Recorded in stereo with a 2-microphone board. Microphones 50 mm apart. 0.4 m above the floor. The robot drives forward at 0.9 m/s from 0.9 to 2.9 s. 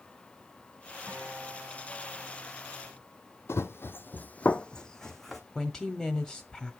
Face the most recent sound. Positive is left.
turn(degrees=10)  # may be behind; listen again after turning